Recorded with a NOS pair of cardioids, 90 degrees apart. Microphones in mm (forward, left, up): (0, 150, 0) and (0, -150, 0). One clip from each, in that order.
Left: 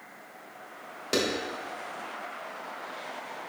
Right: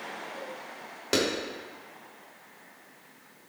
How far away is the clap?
About 3 m.